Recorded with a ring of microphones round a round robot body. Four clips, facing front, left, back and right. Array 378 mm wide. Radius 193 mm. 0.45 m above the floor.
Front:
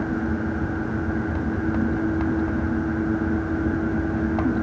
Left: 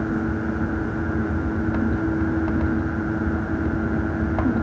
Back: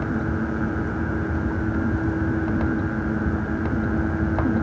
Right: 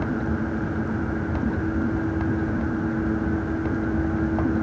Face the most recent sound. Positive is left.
No sound to turn to.